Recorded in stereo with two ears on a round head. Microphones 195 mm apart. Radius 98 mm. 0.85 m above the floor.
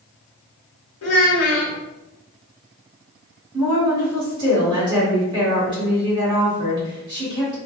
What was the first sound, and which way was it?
A child speaking, 70° left (ahead or behind).